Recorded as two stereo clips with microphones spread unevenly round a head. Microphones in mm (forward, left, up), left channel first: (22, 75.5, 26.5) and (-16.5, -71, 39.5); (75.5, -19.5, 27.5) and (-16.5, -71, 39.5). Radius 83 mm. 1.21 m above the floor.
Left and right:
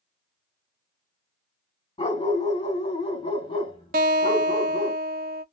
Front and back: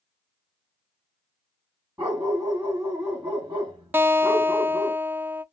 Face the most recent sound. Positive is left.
turn(degrees=-85)